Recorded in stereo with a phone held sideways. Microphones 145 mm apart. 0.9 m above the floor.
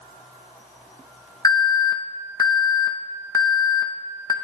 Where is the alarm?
25° left (ahead or behind), 0.7 m.